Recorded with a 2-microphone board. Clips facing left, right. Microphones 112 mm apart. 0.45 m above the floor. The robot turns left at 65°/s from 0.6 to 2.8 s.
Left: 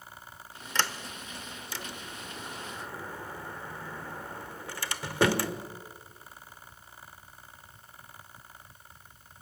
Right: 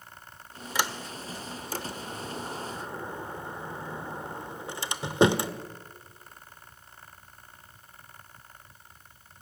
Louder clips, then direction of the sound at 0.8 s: Right 1 dB; 10° right (ahead or behind).